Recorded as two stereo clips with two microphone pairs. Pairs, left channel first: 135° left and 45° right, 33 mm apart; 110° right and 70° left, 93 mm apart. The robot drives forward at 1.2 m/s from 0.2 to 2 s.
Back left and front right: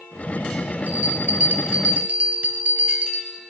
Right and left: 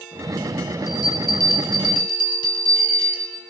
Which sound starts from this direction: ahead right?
A bell, at 0.9 s.